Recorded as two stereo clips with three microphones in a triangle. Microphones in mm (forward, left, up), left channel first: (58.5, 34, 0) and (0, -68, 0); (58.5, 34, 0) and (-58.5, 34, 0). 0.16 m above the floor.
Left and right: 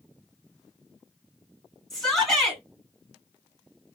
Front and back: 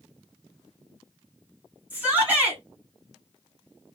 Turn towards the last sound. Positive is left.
turn(degrees=135)